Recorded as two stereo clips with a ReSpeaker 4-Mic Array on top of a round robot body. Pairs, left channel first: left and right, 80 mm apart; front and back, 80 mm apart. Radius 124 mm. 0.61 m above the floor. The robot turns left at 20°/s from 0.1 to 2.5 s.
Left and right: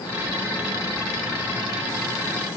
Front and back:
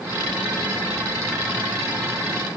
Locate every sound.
Only background noise.